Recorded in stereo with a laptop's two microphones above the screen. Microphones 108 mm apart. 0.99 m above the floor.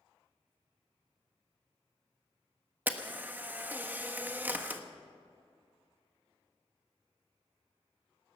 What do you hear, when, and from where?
2.9 s a camera shutter: 15° right (ahead or behind), 1.3 m